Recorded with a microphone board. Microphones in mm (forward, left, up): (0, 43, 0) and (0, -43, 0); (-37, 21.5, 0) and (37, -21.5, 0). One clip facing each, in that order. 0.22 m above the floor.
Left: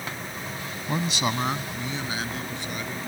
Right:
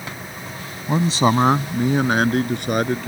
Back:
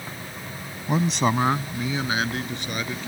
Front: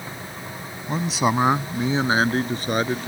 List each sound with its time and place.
0.9 s a man speaking: 140° right; by 3.1 s 75° right